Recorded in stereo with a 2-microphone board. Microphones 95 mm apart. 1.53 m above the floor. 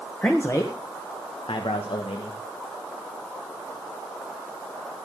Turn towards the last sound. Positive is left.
turn(degrees=90)